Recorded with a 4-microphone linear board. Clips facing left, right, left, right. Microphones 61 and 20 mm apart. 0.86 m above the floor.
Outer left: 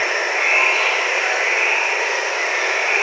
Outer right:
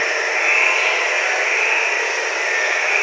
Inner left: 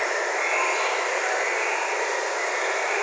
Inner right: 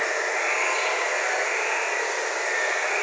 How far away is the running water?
About 1.6 m.